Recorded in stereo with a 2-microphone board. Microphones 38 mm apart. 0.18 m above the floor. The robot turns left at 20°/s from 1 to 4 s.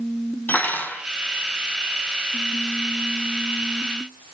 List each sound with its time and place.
0.5 s cutlery clinking: 60° left (ahead or behind), 3.5 m